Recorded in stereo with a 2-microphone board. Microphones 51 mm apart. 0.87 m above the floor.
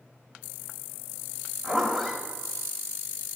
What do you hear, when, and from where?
1.6 s a zipper: centre (ahead or behind), 1.6 m